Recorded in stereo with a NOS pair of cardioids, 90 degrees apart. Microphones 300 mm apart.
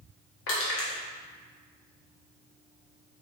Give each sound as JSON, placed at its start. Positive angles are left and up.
{"t": 0.5, "sound": "crushing", "azimuth_deg": 45, "distance_m": 1.2}